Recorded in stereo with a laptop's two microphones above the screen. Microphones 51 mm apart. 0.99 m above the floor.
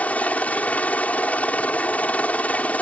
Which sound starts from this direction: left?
A helicopter, at 0.0 s.